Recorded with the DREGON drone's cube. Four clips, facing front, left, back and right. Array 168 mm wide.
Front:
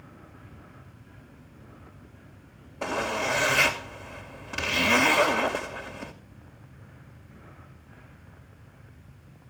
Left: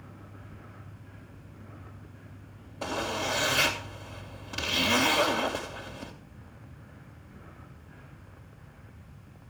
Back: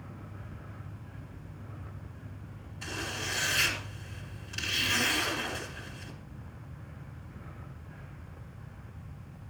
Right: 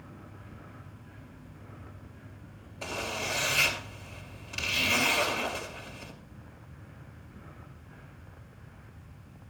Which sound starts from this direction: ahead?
A zipper, at 2.8 s.